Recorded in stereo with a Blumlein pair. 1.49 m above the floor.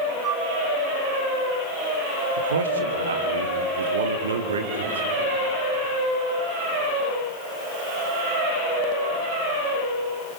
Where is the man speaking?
70° right, 1.8 m.